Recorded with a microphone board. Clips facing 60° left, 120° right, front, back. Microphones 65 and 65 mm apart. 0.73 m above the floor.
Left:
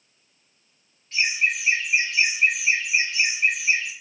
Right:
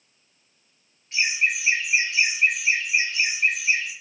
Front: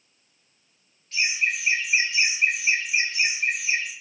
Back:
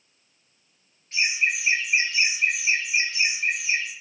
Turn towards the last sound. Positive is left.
turn(degrees=-15)